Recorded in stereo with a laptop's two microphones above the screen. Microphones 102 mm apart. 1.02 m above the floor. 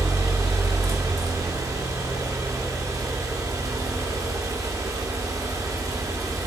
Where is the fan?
35° right (ahead or behind), 0.9 m.